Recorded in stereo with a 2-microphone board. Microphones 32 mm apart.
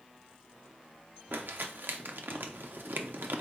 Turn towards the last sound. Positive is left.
turn(degrees=-85)